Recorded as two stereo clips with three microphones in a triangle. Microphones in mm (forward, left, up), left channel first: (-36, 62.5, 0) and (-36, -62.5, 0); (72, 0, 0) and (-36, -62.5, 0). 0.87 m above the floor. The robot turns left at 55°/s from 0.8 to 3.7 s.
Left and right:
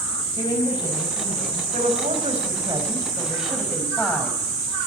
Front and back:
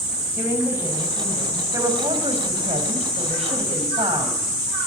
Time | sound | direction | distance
0.4 | a woman speaking | 140° left | 5 m
1.7 | a woman speaking | 85° right | 6 m